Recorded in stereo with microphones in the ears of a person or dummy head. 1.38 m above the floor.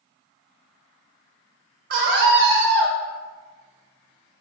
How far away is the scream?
About 0.6 m.